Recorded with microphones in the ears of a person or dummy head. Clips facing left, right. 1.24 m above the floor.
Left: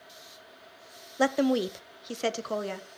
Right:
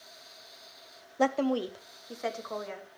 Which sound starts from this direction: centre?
A woman speaking, at 1.2 s.